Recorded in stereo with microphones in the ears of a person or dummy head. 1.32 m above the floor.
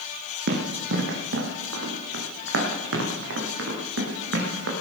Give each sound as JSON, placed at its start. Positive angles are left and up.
{"t": 0.5, "sound": "running footsteps", "side_deg": -60, "distance_m": 2.5}